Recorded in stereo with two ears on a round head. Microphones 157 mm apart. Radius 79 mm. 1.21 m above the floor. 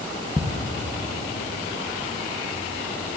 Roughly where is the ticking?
Centre.